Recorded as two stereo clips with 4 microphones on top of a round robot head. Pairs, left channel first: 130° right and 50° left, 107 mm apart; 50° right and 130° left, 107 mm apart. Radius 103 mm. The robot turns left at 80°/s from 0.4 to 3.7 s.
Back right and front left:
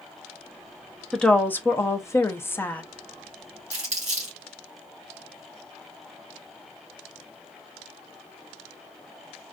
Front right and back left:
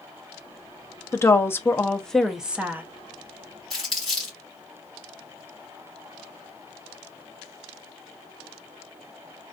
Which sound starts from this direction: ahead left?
Crumpling, at 3.7 s.